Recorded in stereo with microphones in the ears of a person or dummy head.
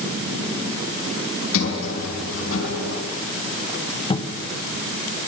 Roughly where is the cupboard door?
Left.